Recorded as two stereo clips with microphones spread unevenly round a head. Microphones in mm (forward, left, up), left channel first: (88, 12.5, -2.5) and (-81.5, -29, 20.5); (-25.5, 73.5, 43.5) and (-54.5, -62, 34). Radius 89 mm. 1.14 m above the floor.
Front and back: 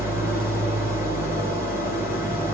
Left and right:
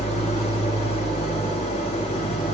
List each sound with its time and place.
0.0 s an engine running: 120° left, 4 m